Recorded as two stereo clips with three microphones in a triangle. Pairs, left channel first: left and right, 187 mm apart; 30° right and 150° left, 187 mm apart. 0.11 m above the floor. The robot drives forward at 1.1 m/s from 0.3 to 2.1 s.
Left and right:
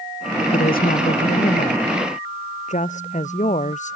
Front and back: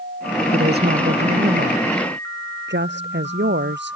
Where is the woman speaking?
125° left; by 4.0 s 140° left.